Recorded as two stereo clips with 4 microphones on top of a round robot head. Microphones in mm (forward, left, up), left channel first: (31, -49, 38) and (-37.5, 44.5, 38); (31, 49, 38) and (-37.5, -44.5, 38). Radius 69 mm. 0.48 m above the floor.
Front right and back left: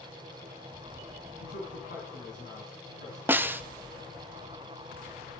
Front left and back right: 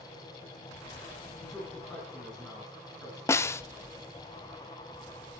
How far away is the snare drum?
About 0.9 m.